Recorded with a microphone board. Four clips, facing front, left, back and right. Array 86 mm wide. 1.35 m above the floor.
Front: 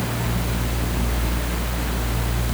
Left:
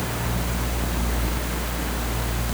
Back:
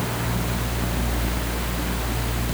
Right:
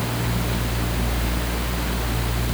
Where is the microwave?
I don't hear a microwave.